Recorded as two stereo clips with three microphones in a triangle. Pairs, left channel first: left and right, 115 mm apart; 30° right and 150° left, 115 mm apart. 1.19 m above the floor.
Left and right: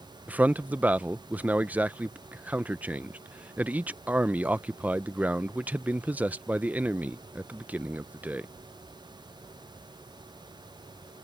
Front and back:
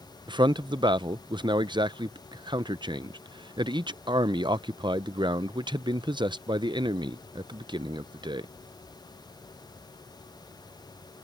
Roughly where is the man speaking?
Behind.